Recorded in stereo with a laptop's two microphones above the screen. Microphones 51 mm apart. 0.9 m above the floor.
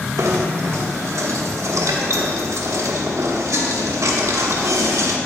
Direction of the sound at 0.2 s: 85° right.